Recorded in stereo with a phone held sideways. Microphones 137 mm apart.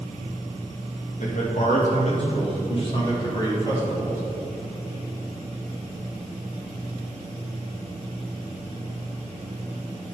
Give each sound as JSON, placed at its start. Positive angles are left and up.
{"t": 1.2, "sound": "a man speaking", "side_deg": 70, "distance_m": 2.5}